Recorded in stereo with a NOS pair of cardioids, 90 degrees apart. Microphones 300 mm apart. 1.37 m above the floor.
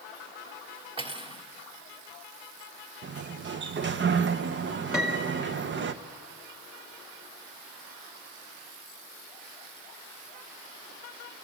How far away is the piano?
About 2.5 m.